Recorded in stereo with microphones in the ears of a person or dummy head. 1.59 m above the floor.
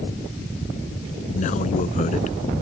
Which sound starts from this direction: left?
A man speaking, at 1.3 s.